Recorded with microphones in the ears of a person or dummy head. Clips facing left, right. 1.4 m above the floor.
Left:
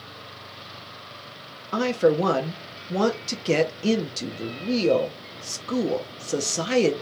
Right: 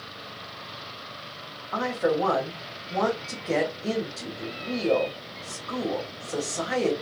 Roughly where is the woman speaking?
Left.